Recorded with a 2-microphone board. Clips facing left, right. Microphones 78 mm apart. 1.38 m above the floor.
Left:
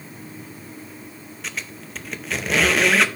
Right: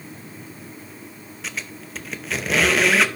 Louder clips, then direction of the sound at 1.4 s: Even; centre (ahead or behind).